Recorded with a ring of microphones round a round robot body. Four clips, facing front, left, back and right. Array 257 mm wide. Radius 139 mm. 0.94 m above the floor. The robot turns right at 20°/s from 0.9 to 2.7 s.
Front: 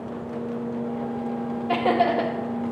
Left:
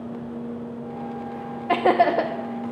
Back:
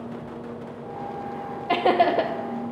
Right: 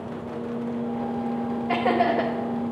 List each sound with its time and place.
1.7 s laughter: 110° left, 0.7 m; by 2.3 s 120° left, 0.7 m